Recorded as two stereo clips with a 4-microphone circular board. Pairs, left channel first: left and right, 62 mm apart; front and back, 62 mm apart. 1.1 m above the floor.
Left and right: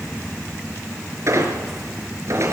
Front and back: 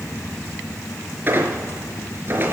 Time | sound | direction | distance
1.3 | a squeak | 125° right | 4 m